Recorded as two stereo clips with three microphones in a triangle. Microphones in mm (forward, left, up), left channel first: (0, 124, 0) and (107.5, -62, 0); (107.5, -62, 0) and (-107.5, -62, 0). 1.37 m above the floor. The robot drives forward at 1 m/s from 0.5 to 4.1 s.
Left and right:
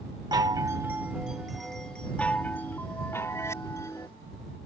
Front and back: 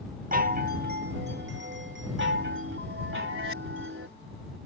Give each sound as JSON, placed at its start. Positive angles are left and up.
{"t": 0.3, "sound": "a chime", "azimuth_deg": -130}